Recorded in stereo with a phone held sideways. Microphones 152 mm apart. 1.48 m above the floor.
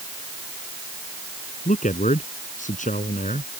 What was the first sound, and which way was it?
A man speaking, 55° left (ahead or behind).